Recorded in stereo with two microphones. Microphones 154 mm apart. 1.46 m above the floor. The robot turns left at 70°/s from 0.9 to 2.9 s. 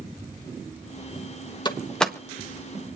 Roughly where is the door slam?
Left.